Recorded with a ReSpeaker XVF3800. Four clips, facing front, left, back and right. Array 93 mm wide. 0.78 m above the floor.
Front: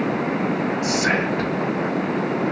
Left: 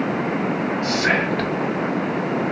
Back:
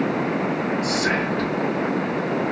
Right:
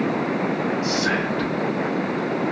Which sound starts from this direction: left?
Whispering, at 0.8 s.